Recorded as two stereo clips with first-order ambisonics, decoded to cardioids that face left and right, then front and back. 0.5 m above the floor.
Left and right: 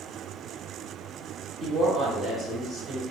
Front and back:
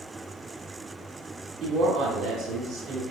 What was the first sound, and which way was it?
A woman speaking, 175° left.